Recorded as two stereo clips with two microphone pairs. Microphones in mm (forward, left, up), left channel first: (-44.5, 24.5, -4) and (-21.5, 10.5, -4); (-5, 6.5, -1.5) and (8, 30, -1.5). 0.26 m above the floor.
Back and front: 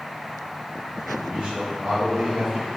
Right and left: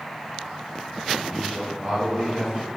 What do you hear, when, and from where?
1.2 s a man speaking: 25° right, 2.5 m; by 2.7 s 10° left, 2 m